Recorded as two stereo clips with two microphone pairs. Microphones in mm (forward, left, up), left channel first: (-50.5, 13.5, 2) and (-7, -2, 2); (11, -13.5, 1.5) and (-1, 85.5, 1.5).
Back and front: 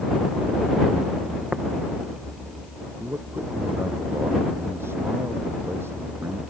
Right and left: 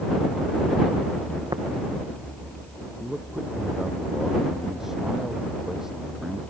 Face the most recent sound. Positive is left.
turn(degrees=10)